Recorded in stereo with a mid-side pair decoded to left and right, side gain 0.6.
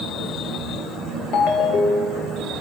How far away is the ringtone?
About 1.3 m.